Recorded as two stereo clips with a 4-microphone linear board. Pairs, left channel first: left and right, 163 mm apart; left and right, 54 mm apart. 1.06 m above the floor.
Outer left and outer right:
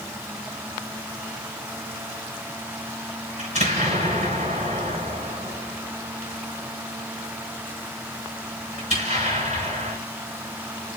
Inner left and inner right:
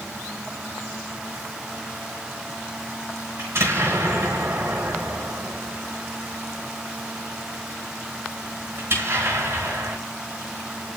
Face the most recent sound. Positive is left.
turn(degrees=-45)  # may be behind; listen again after turning